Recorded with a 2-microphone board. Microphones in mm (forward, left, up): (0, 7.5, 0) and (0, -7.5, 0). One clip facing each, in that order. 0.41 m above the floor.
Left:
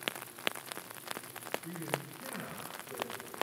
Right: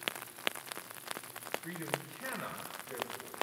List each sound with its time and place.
1.6 s a man speaking: 60° right (ahead or behind), 3.5 m